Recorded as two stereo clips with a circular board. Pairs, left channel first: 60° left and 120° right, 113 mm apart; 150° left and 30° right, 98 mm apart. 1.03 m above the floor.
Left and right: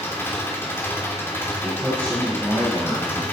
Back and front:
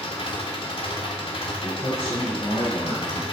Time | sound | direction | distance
0.0 | an engine running | 130° left | 3 m
1.6 | a man speaking | 140° left | 5.5 m